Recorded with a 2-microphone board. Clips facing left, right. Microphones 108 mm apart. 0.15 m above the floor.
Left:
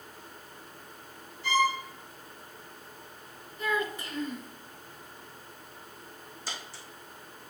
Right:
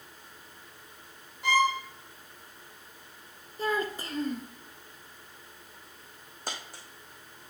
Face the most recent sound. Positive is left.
turn(degrees=-50)  # may be behind; listen again after turning